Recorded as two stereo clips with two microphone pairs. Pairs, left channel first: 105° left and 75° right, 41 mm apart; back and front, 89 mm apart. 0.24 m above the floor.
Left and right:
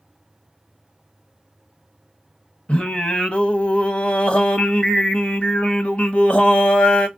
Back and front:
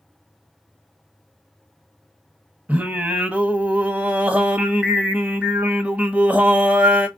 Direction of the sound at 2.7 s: 60° left.